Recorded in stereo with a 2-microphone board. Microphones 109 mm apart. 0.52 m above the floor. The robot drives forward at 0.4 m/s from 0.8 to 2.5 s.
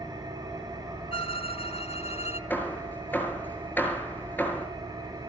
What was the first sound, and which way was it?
An engine running, 35° right (ahead or behind).